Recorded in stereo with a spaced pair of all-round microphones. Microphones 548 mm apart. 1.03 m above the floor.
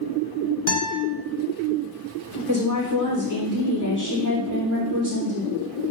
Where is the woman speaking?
35° right (ahead or behind), 4 m.